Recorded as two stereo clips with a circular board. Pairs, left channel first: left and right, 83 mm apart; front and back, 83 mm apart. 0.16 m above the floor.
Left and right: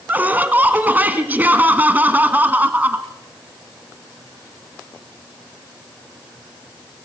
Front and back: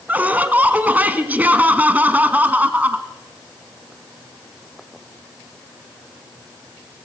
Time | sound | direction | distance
0.1 | laughter | 135° right | 1.2 m